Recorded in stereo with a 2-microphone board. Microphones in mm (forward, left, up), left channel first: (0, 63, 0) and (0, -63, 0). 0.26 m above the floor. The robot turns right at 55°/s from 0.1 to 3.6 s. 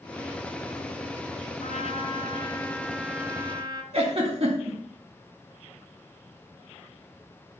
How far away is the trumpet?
About 1.2 m.